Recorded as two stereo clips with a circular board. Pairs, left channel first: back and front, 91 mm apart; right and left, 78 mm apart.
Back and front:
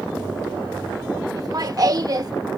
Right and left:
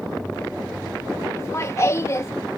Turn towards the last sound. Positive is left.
turn(degrees=-40)